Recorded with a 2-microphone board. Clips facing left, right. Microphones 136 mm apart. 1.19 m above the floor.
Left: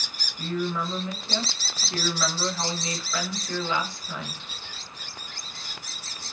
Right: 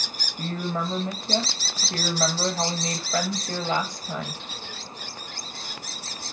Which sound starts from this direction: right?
A woman speaking, at 0.4 s.